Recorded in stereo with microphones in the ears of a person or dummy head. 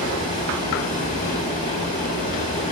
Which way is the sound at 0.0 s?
40° left (ahead or behind).